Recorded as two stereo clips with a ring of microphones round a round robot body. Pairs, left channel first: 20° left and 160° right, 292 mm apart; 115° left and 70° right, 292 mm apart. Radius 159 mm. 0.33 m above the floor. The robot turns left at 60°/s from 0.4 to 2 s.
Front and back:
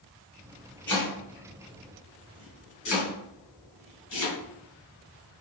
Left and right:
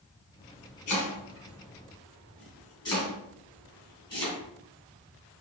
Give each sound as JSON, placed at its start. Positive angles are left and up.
{"t": 0.9, "sound": "chopping", "azimuth_deg": 105, "distance_m": 2.0}